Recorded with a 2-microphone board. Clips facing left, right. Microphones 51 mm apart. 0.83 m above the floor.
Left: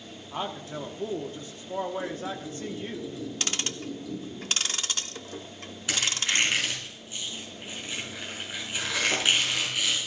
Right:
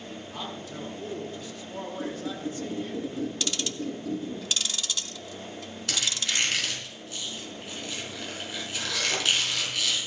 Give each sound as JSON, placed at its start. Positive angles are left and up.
{"t": 0.3, "sound": "a man speaking", "side_deg": 35, "distance_m": 1.3}
{"t": 2.0, "sound": "a squeak", "side_deg": -50, "distance_m": 3.0}
{"t": 3.4, "sound": "ticking", "side_deg": 45, "distance_m": 0.6}
{"t": 5.9, "sound": "a squeak", "side_deg": 15, "distance_m": 5.0}